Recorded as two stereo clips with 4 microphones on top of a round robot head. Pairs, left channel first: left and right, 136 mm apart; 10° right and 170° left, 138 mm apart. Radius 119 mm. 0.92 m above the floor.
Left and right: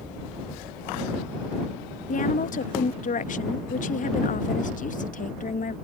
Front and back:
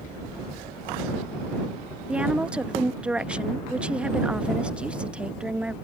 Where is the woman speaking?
90° left.